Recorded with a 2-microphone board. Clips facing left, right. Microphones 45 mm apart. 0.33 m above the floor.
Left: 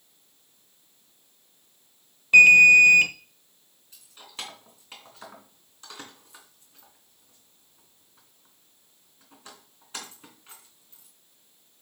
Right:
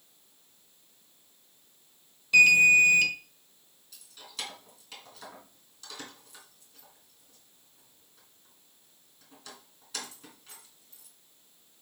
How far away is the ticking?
I don't hear ticking.